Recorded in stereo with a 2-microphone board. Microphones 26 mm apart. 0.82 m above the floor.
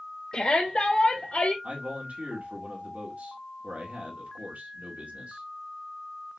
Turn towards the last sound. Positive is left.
turn(degrees=-75)  # may be behind; listen again after turning